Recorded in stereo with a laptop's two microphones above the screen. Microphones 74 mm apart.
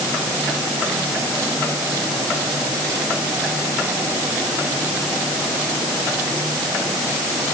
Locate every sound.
Only background noise.